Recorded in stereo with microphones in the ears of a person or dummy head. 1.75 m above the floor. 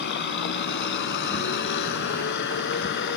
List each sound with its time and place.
0.0 s a vehicle: 65° left (ahead or behind)